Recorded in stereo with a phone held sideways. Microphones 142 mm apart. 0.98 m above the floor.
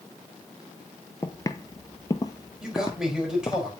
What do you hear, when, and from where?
1.2 s footsteps: 20° left (ahead or behind), 1.0 m; by 3.6 s 25° left (ahead or behind), 1.8 m
2.6 s a man speaking: 5° right (ahead or behind), 4.5 m